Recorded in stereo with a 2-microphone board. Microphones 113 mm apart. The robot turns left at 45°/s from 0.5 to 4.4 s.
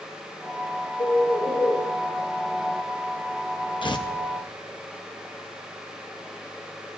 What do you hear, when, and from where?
1.0 s a bird: 25° left, 5 m; by 1.8 s 10° right, 5 m
3.8 s tearing paper: 45° left (ahead or behind), 0.9 m; by 4.1 s 35° left (ahead or behind), 0.9 m